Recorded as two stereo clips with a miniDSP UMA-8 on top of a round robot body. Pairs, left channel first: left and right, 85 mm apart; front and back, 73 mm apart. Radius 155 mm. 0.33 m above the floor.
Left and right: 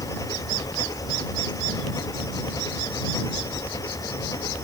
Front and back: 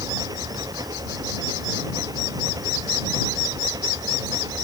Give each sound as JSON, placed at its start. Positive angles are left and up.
{"t": 0.0, "sound": "an engine running", "azimuth_deg": 140}